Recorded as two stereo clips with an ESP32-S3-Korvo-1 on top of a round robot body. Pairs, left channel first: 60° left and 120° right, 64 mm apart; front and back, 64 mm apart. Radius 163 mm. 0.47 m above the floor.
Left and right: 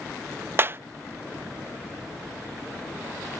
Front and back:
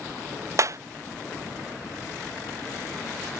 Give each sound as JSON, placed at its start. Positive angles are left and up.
{"t": 0.6, "sound": "a clap", "azimuth_deg": -165}